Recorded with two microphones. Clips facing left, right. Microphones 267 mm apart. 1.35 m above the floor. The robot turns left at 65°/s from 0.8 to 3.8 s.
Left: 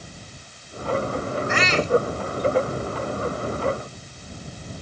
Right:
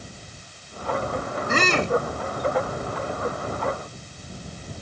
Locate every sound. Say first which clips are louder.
1.5 s a shout: left 1 dB; 40° right; by 2.0 s 70° right